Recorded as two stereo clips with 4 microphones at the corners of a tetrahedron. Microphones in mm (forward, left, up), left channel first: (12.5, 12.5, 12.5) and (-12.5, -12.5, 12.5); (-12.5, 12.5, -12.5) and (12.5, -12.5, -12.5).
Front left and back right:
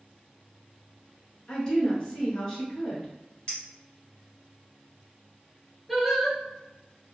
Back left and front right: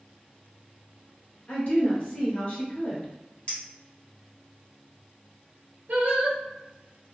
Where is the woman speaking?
105° left, 1.7 m.